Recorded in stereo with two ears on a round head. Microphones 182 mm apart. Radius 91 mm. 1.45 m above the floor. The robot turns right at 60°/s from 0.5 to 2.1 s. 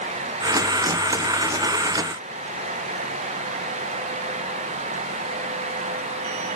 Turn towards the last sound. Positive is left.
No sound to turn to.